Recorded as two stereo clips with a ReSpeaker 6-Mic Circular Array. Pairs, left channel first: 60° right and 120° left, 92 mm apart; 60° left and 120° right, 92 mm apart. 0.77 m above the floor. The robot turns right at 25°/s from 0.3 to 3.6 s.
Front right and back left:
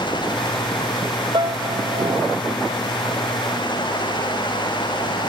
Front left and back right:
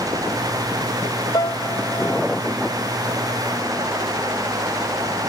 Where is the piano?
95° left; by 2.4 s 125° left.